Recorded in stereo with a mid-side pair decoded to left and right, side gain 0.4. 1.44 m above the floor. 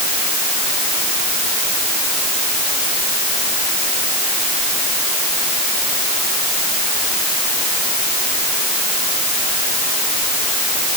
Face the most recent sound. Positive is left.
No sound to turn to.